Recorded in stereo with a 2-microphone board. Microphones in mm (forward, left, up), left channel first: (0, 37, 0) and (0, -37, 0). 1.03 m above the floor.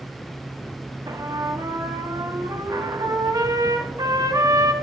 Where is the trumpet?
55° right (ahead or behind), 1.0 m.